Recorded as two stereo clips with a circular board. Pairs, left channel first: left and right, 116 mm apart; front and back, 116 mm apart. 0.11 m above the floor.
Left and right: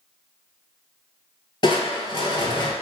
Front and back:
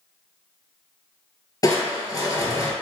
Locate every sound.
1.6 s crushing: 50° left, 0.5 m